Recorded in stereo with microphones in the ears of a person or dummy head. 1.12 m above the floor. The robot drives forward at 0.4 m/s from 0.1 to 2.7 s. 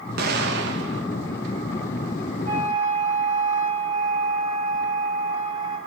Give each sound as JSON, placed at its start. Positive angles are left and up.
{"t": 0.2, "sound": "an explosion", "side_deg": -60, "distance_m": 1.2}
{"t": 2.5, "sound": "a flute", "side_deg": -45, "distance_m": 5.5}